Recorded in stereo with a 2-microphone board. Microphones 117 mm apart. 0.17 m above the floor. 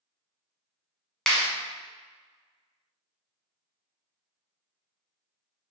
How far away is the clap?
About 0.9 m.